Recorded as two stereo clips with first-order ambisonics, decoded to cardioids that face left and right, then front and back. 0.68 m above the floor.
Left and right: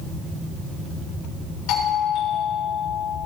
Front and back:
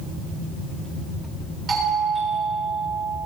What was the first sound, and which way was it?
A doorbell, 110° left.